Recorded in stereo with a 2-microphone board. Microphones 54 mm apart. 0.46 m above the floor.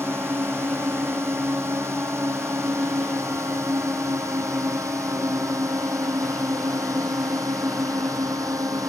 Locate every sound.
0.0 s a drone: 50° right (ahead or behind); by 8.9 s 80° right